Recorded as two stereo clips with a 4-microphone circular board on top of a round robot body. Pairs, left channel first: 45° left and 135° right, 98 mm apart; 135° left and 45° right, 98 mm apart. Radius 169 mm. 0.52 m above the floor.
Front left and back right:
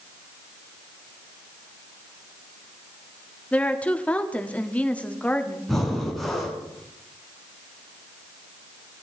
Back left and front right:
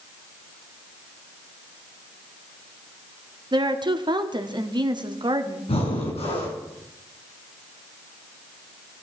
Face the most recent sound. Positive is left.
turn(degrees=130)